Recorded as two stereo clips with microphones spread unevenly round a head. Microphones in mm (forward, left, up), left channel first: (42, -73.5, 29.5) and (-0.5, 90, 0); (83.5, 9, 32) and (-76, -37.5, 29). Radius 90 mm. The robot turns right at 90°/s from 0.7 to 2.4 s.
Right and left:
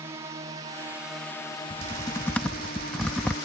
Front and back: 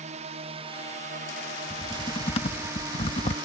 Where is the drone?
165° left; by 3.5 s 110° right.